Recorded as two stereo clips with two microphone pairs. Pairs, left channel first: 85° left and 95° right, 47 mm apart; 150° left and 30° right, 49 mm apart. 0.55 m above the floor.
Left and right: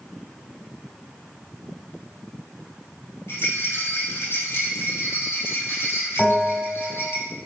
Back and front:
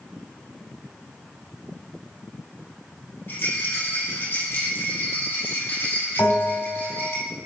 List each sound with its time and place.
3.3 s a rattle: 115° left, 2.5 m
6.2 s a bell: 150° left, 3.5 m